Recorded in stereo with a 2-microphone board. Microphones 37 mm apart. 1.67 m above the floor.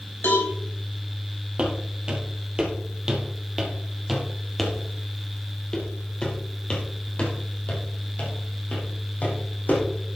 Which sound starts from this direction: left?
A cowbell, at 0.2 s.